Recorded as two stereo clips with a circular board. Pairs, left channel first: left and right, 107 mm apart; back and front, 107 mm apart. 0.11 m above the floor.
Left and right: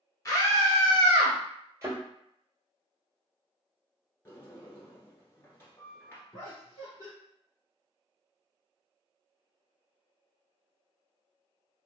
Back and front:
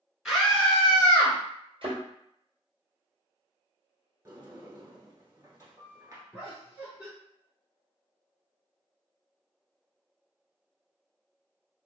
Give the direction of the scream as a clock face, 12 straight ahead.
9 o'clock.